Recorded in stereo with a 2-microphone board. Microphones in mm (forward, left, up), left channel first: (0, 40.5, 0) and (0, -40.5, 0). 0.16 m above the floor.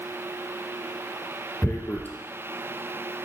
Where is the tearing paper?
25° left (ahead or behind), 0.7 m.